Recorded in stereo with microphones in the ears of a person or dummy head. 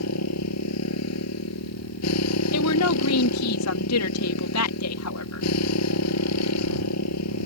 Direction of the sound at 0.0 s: 85° left.